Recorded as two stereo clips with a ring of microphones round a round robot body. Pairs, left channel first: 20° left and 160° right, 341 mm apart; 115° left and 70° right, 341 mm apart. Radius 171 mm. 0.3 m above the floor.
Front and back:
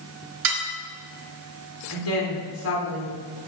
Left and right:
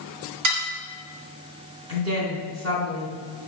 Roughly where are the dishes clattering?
Right.